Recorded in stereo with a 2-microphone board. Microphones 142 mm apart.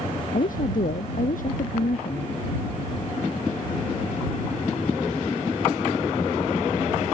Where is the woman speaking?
75° left (ahead or behind); by 2.3 s 70° left (ahead or behind).